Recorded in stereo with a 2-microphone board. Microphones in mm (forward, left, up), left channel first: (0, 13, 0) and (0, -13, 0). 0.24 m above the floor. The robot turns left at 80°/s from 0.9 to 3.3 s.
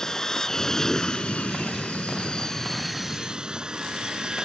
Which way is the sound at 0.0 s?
155° left.